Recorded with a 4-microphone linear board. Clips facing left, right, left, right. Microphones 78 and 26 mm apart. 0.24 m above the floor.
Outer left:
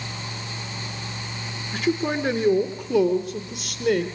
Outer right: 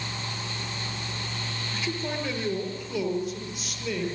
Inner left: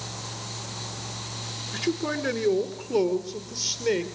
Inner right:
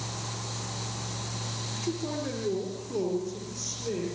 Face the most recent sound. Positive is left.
turn(degrees=75)  # may be behind; listen again after turning